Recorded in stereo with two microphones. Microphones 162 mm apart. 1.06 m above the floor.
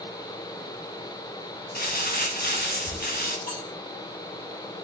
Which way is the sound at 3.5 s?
55° left (ahead or behind).